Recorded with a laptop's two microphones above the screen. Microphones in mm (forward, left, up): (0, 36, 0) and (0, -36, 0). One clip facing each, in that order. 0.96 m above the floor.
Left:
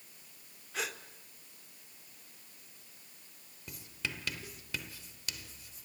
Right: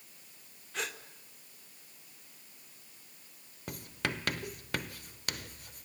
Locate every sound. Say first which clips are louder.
0.7 s a gasp: even; centre (ahead or behind), 1.7 m
3.7 s writing: right 6 dB; 55° right (ahead or behind), 1.0 m